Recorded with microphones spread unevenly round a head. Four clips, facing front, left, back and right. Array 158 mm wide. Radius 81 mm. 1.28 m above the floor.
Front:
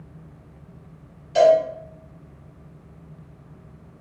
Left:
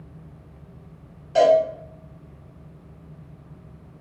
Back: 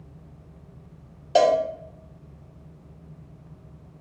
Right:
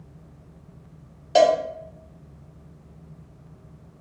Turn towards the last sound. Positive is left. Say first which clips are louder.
# left 1 dB, front 4 dB
turn(degrees=-155)